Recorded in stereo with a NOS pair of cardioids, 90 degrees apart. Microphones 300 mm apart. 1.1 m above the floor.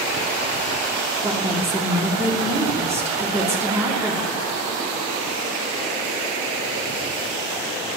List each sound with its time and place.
1.2 s a woman speaking: 10° right, 2.5 m